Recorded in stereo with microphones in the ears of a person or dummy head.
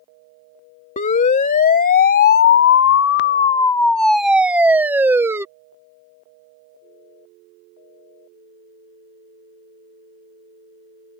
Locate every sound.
1.0 s a siren: 35° left (ahead or behind); by 5.5 s 10° right (ahead or behind)